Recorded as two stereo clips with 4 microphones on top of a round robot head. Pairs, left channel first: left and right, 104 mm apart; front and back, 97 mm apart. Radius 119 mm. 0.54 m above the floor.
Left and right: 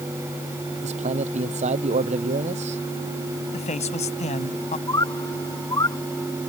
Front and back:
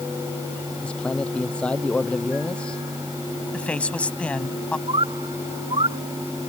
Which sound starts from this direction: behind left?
A bird, at 4.9 s.